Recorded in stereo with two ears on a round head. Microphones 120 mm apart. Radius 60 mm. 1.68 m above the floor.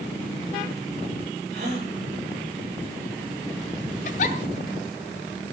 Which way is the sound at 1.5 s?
55° right (ahead or behind).